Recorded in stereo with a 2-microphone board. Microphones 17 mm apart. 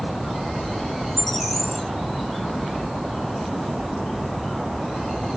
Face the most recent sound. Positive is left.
turn(degrees=10)  # may be behind; listen again after turning